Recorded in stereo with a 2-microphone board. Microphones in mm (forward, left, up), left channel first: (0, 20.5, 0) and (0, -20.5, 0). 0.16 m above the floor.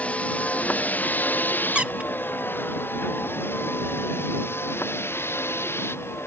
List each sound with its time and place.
0.0 s a vehicle: 35° left (ahead or behind); by 6.3 s 80° left
1.8 s a squeak: 30° right (ahead or behind)